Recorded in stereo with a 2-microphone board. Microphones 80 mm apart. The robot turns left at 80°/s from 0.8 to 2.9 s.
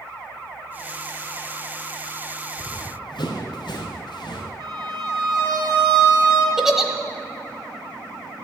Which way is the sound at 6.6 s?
5° right (ahead or behind).